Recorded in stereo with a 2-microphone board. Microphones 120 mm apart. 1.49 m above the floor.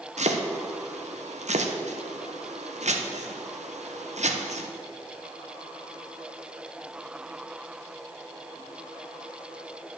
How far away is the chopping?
About 0.9 m.